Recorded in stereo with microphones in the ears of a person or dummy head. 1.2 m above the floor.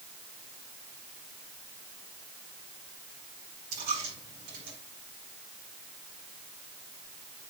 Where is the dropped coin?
55° right (ahead or behind), 5 m.